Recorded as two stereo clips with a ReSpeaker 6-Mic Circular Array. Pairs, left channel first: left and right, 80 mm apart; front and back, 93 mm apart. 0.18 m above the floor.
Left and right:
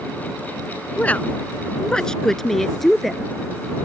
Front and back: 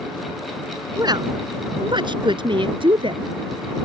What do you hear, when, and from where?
1.0 s a woman speaking: 155° left; by 3.3 s straight behind